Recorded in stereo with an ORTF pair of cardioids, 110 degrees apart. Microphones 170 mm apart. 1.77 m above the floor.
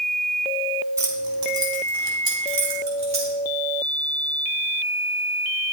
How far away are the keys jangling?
About 3 m.